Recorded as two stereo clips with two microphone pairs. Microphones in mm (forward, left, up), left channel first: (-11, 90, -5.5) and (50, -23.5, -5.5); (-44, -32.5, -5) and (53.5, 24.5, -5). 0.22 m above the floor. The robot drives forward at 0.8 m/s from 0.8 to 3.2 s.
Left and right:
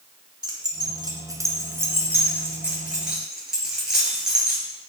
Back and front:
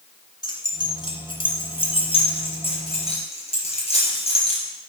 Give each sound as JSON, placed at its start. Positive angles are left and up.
{"t": 0.4, "sound": "keys jangling", "azimuth_deg": -110, "distance_m": 1.9}